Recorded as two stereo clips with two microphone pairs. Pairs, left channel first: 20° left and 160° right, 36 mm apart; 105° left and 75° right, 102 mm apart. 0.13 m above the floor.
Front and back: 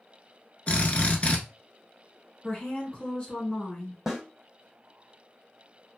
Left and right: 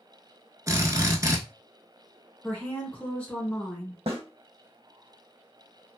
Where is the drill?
25° right, 0.7 m.